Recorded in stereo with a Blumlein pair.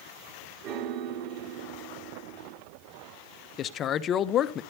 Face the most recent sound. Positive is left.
turn(degrees=30)